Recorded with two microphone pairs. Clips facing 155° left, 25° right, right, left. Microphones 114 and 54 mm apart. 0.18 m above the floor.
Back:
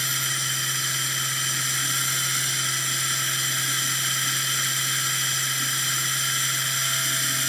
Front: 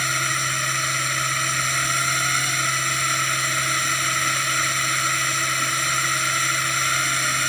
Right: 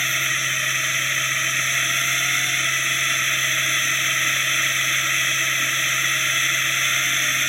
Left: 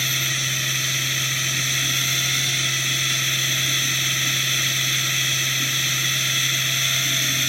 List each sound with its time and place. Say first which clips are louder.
0.0 s a drone: front 7 dB, right 3 dB; 30° right